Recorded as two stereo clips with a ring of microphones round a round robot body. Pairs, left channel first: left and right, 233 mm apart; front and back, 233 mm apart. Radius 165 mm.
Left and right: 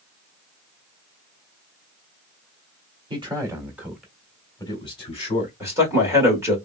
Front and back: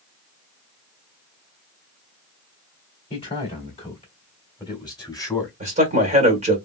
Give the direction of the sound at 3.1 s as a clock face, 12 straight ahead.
1 o'clock.